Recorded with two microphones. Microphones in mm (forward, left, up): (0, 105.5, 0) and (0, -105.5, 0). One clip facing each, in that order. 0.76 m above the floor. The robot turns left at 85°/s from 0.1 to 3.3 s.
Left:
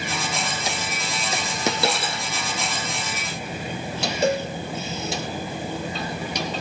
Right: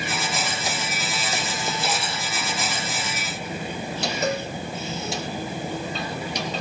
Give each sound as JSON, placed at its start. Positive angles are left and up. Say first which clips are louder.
{"t": 1.7, "sound": "a dropped coin", "louder": "left 7 dB", "azimuth_deg": 95, "distance_m": 3.5}
{"t": 4.2, "sound": "a cowbell", "louder": "left 5 dB", "side_deg": 30, "distance_m": 1.6}